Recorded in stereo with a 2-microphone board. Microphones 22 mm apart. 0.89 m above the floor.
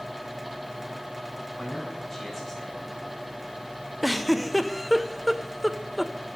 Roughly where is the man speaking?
Centre.